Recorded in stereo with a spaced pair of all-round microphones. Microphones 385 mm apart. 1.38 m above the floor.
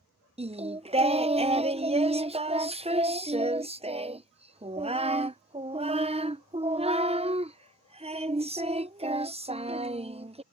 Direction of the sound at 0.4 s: 15° right (ahead or behind).